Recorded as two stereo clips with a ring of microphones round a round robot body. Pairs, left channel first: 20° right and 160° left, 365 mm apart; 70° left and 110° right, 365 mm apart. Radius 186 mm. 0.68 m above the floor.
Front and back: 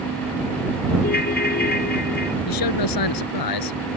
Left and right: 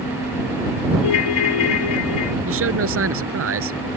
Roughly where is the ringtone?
Ahead left.